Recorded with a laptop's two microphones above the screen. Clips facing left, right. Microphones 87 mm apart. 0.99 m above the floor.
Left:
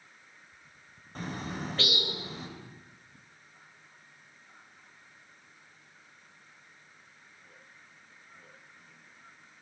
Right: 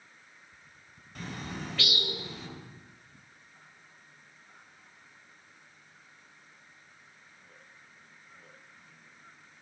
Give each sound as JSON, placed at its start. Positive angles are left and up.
{"t": 1.1, "sound": "a bird", "side_deg": 35, "distance_m": 3.0}